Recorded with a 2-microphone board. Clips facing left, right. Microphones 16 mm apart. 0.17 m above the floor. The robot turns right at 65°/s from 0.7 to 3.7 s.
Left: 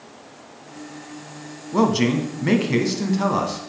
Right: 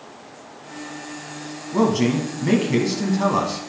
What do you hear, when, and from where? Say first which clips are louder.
1.7 s a man speaking: even; 20° left (ahead or behind), 1.0 m; by 3.6 s 10° right (ahead or behind), 1.0 m